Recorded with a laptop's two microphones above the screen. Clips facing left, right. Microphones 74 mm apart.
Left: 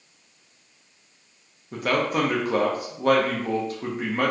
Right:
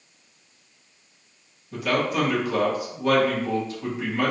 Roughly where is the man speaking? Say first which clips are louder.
Even; left.